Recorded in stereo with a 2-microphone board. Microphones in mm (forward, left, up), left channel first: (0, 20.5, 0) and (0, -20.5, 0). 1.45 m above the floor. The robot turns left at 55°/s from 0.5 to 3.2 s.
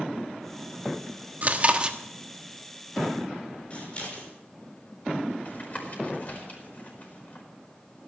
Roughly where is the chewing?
Behind right.